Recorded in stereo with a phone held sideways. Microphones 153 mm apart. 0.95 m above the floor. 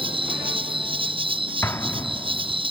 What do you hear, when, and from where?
0.0 s an insect: 35° right (ahead or behind)
1.6 s an explosion: 15° left (ahead or behind)